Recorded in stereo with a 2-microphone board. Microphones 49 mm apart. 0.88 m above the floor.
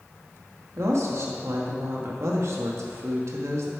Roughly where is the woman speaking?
Right.